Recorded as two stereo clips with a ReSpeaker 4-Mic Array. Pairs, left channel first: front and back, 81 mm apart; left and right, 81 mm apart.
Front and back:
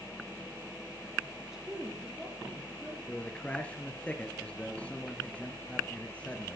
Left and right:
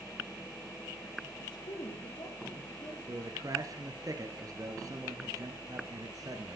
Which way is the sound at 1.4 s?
100° left.